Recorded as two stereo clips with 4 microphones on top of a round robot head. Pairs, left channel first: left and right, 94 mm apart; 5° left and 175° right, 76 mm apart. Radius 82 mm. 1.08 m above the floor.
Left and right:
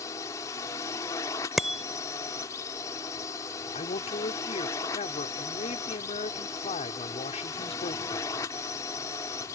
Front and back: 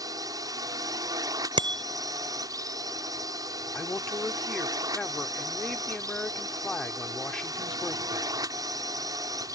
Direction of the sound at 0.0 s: 150° left.